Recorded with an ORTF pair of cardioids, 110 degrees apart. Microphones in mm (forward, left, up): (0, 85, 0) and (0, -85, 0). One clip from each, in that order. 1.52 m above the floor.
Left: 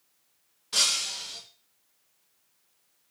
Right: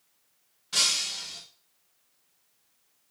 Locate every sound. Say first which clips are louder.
0.7 s breaking glass: even; 5° left, 2.5 m